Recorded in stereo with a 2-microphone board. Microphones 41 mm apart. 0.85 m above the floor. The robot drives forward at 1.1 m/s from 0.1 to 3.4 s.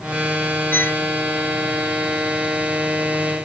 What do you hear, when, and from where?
0.7 s a violin: 55° left (ahead or behind)